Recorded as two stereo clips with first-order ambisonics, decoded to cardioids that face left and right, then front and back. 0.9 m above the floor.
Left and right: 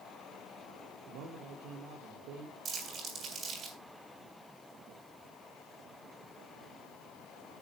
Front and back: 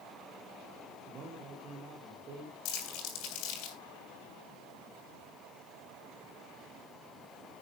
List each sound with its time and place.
1.1 s a man speaking: 125° right, 2 m
2.6 s crumpling: 20° right, 6.5 m